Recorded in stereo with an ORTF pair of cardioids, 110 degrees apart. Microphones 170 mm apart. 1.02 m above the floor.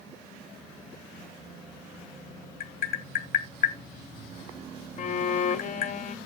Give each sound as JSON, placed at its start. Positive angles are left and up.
{"t": 2.6, "sound": "tapping", "azimuth_deg": 60, "distance_m": 2.5}
{"t": 5.0, "sound": "a violin", "azimuth_deg": 45, "distance_m": 0.8}